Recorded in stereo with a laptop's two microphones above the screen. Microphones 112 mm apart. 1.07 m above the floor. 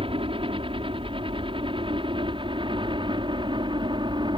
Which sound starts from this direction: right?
A helicopter, at 0.0 s.